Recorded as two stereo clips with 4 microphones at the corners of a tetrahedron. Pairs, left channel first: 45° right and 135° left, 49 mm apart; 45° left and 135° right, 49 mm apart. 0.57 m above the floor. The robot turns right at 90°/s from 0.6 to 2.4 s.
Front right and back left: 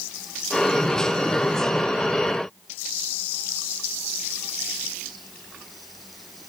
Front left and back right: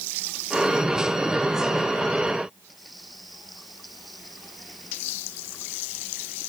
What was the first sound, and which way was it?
Only background noise.